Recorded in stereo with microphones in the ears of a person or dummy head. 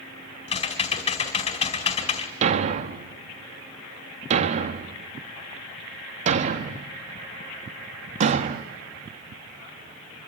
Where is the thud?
35° right (ahead or behind), 0.8 m.